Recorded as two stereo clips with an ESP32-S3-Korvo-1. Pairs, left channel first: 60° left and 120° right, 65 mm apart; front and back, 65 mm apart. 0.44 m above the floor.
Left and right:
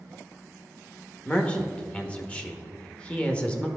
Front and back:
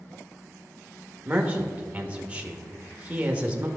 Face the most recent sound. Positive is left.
turn(degrees=120)